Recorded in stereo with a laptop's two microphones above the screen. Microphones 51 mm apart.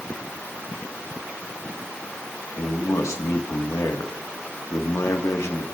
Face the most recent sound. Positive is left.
turn(degrees=85)